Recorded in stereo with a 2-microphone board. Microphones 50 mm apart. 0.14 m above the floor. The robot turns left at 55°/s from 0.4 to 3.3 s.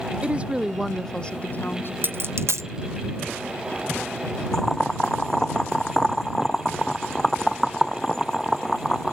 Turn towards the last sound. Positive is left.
turn(degrees=10)  # may be behind; listen again after turning